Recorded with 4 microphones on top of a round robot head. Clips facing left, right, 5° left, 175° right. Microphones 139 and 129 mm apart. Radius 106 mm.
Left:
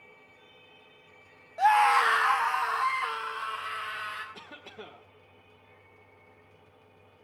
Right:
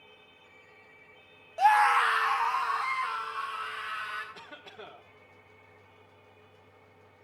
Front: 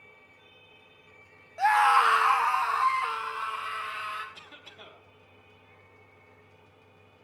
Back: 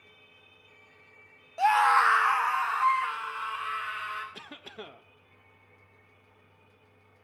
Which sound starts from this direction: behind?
A cough, at 4.3 s.